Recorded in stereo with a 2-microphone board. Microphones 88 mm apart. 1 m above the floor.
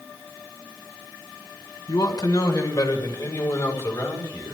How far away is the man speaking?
About 3.5 m.